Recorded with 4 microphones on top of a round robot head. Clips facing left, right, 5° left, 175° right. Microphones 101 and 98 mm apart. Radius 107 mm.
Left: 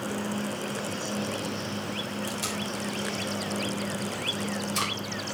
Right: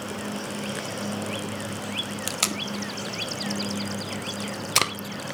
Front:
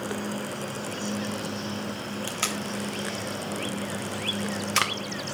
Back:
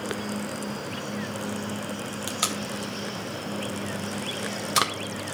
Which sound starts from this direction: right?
Tape being pulled, at 2.3 s.